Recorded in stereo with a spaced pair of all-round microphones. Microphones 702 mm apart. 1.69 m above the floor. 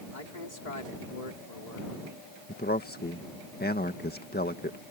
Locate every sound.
0.1 s a man speaking: 85° left
2.5 s a man speaking: 15° left (ahead or behind)